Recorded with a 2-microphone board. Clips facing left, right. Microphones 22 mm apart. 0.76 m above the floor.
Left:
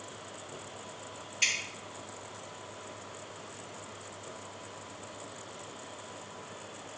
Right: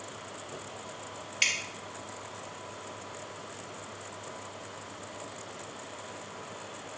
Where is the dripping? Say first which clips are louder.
Right 2 dB; 40° right (ahead or behind), 2 m.